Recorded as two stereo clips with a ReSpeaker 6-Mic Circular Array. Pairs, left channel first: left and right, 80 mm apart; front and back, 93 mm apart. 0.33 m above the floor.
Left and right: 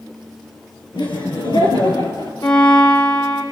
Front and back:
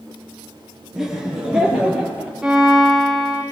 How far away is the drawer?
I don't hear a drawer.